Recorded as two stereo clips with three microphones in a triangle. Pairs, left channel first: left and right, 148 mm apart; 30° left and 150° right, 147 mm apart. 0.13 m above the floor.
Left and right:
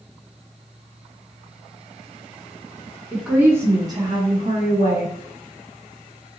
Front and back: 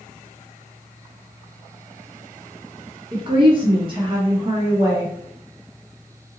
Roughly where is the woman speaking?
Behind.